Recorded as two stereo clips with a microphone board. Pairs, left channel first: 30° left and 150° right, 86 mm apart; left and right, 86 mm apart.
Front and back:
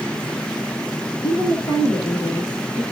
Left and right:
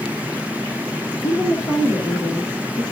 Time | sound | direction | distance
1.2 | a woman speaking | 60° left | 3.5 m